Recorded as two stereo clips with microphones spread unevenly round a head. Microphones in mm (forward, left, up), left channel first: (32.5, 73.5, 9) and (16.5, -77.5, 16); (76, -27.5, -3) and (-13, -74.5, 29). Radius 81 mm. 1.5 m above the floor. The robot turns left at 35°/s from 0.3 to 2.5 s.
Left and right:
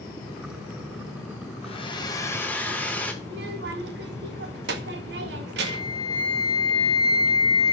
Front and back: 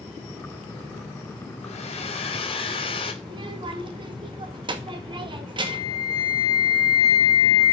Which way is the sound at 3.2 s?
120° right.